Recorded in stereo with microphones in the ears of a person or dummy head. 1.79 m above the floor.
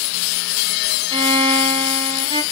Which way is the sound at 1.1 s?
30° right (ahead or behind).